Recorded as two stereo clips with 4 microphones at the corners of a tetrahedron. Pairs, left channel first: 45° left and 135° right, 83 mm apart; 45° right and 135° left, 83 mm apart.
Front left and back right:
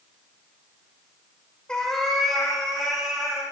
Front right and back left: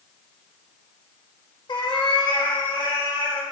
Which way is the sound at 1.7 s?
35° right.